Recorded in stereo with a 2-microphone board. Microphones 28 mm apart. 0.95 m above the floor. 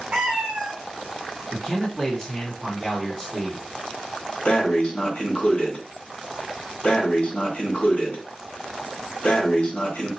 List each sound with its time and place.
0.1 s a cat meowing: 35° right (ahead or behind), 1.5 m
1.5 s a man speaking: 10° left (ahead or behind), 1.4 m
4.5 s breathing: 65° left (ahead or behind), 1.6 m